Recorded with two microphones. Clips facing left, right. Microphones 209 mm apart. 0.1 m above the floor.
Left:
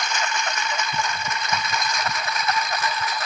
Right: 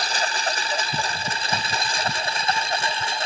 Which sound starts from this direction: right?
A lawn mower, at 0.0 s.